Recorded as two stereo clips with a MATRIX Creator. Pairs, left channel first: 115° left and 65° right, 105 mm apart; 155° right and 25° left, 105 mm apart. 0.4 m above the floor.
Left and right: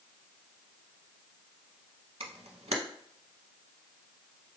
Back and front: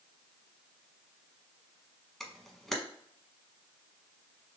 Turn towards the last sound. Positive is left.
turn(degrees=-70)